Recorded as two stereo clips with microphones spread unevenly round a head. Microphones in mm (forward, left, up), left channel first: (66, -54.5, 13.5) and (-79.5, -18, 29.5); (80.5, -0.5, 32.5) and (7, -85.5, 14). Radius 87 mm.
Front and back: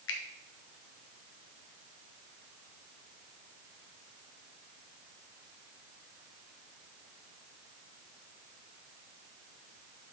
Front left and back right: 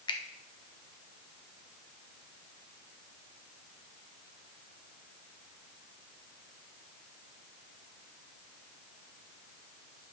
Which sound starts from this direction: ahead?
A finger snap, at 0.1 s.